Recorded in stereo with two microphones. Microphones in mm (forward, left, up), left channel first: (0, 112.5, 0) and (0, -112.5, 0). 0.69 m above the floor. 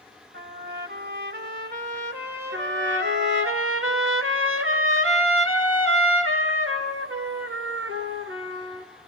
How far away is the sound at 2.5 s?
About 2 m.